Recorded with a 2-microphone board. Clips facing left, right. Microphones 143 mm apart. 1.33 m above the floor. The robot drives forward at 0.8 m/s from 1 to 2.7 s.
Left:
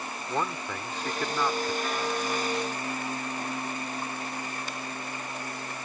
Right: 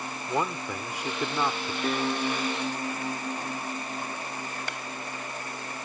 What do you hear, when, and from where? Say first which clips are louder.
0.3 s a man speaking: right 2 dB; 10° right (ahead or behind); by 1.7 s 15° right (ahead or behind)
1.8 s a piano: right 2 dB; 45° right (ahead or behind)
4.7 s a clap: even; 70° right (ahead or behind)